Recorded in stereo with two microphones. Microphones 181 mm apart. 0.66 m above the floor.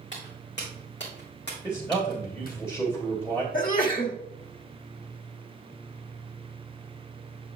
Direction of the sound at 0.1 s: 75° left (ahead or behind).